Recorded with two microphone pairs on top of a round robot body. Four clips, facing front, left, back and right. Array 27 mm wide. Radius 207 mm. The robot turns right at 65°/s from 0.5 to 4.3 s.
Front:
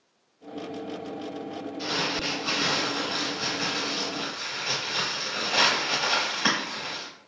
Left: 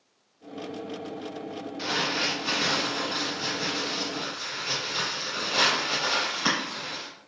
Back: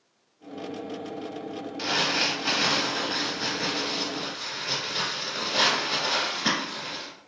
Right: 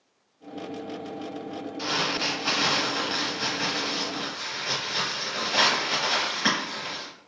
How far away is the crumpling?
About 0.7 m.